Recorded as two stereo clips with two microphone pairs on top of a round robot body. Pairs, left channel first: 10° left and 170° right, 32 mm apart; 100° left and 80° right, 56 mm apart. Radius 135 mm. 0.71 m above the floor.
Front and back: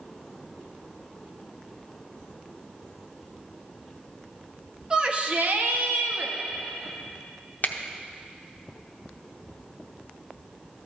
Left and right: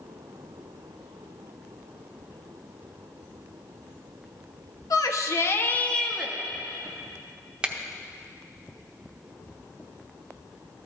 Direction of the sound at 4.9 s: 115° left.